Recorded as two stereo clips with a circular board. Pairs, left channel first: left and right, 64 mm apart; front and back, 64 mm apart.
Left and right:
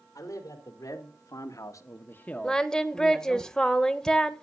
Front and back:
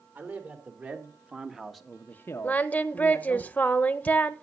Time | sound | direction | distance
0.1 | a man speaking | 120° left | 3.5 m
2.4 | singing | 25° left | 0.7 m